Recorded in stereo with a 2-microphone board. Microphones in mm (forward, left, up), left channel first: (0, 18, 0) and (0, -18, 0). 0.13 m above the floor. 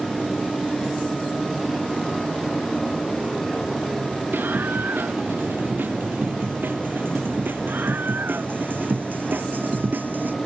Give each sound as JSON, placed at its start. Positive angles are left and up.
{"t": 4.3, "sound": "a scream", "side_deg": -85}